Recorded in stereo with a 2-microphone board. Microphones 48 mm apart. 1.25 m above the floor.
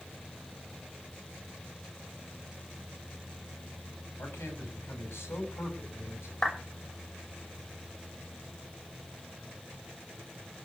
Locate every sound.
4.2 s a man speaking: 55° left (ahead or behind), 8.5 m
6.4 s a clap: 20° left (ahead or behind), 6 m